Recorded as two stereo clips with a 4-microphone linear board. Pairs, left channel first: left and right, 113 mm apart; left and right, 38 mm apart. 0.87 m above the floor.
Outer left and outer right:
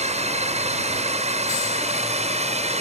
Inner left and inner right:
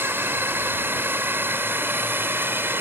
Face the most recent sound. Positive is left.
turn(degrees=-70)  # may be behind; listen again after turning